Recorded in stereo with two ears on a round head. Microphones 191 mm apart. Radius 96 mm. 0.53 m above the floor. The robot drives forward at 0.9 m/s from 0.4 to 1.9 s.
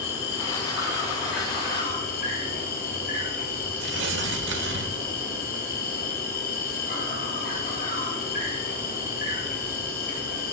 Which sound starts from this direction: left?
An insect, at 0.0 s.